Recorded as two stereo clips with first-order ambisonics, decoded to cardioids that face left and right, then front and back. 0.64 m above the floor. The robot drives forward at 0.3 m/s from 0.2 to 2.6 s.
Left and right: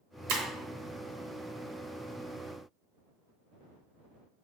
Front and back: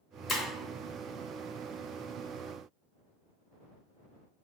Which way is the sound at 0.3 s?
70° right.